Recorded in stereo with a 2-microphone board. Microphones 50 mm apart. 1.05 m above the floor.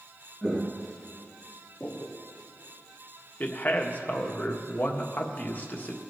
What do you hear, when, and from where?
0.4 s footsteps: 15° right (ahead or behind), 1.0 m; by 2.2 s 35° left (ahead or behind), 1.6 m
3.4 s a man speaking: 40° left (ahead or behind), 1.4 m